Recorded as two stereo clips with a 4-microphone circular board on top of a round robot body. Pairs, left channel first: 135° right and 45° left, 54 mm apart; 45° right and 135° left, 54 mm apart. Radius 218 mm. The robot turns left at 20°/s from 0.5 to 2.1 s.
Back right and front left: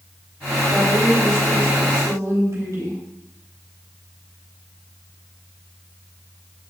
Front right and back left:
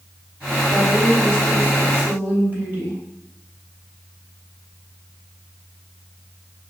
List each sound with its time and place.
0.7 s a woman speaking: 110° left, 3 m; by 3.0 s 80° left, 3 m